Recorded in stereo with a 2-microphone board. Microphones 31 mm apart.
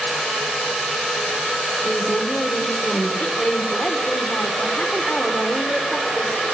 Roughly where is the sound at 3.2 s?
Left.